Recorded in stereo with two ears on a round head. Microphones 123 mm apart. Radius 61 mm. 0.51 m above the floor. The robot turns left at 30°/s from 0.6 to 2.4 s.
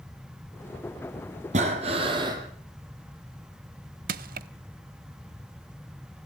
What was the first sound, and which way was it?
Breathing, 55° right (ahead or behind).